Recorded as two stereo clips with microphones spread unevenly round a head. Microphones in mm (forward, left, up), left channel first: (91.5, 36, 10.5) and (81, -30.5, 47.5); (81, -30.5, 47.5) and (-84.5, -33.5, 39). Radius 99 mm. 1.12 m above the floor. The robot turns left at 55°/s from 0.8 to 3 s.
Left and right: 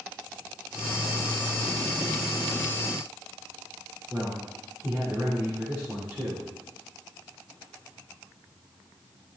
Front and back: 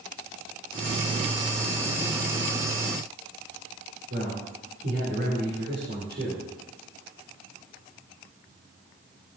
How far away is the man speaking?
About 4.5 m.